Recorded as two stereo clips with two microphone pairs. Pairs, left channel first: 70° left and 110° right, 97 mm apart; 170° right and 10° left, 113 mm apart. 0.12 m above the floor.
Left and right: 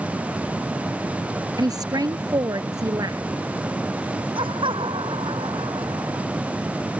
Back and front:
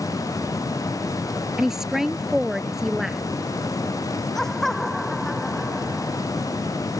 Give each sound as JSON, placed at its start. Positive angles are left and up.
{"t": 1.6, "sound": "a woman speaking", "azimuth_deg": -75}
{"t": 4.3, "sound": "laughter", "azimuth_deg": -85}